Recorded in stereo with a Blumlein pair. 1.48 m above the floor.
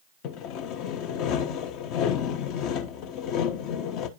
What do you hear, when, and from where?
0.2 s sawing: 40° left, 0.9 m